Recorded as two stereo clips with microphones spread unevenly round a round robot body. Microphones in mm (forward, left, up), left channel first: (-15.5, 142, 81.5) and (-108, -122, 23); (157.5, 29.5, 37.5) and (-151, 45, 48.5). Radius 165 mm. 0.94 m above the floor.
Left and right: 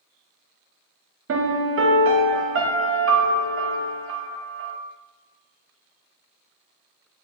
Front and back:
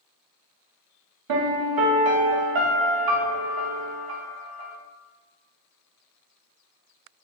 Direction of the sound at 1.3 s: 155° right.